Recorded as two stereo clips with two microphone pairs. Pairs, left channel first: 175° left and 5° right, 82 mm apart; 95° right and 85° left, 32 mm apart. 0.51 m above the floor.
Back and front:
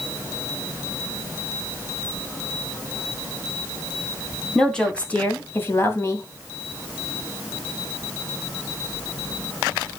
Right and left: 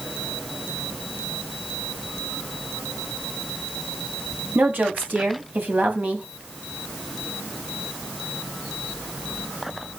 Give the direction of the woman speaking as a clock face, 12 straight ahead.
9 o'clock.